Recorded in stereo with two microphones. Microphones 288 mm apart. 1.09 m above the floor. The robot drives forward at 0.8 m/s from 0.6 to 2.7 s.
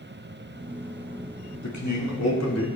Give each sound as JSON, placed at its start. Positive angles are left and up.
{"t": 1.6, "sound": "a man speaking", "side_deg": 75, "distance_m": 2.0}